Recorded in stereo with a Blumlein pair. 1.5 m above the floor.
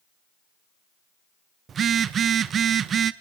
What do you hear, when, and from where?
1.7 s a phone buzzing: 25° right, 0.9 m